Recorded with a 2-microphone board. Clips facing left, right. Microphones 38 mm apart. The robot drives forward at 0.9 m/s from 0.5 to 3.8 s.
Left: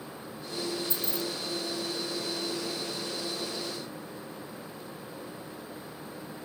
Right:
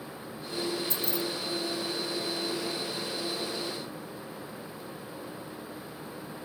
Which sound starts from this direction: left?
Keys jangling, at 0.9 s.